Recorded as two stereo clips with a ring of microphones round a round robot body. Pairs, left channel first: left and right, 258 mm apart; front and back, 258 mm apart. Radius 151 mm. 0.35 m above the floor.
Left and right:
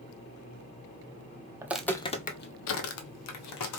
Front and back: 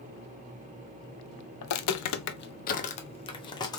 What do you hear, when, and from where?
1.6 s footsteps: 15° right, 0.5 m; by 3.8 s 75° left, 1.1 m